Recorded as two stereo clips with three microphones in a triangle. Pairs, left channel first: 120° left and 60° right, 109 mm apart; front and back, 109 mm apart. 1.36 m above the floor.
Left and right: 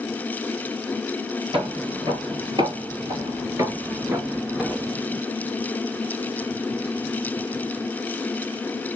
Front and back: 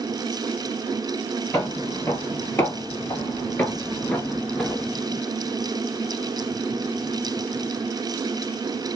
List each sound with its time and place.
1.5 s footsteps: 60° right, 2 m; by 4.9 s straight ahead, 1.3 m